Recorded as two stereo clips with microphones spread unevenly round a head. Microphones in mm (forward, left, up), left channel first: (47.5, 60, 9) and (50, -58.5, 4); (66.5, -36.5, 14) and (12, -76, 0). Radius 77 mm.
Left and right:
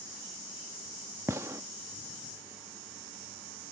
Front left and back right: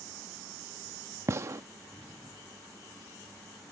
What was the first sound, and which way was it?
A gunshot, 140° right.